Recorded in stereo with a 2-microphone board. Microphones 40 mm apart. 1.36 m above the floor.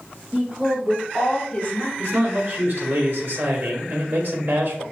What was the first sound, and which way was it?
A woman speaking, 25° right (ahead or behind).